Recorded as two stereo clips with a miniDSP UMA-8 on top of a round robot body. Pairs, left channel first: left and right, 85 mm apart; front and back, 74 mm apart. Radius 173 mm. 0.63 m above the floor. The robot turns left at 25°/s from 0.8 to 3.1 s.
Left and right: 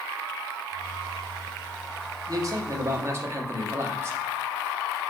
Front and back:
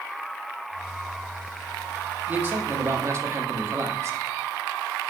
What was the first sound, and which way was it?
A man speaking, 120° right.